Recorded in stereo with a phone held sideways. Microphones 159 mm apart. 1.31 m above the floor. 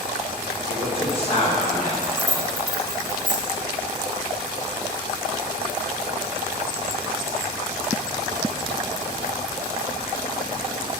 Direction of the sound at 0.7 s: 30° left (ahead or behind).